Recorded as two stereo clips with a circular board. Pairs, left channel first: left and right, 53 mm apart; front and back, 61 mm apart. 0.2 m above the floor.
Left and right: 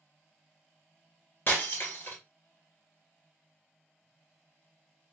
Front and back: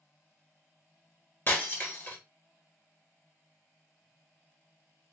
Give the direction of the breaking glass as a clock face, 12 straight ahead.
10 o'clock.